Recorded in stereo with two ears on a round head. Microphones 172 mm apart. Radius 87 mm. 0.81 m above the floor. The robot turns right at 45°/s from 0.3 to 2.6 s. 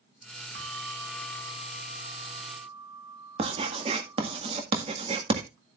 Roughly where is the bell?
Right.